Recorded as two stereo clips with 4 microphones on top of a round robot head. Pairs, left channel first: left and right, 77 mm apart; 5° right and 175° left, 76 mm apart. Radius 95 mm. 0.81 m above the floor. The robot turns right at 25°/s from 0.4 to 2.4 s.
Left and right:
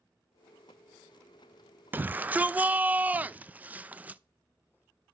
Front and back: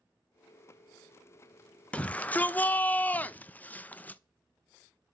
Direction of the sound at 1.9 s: 60° right.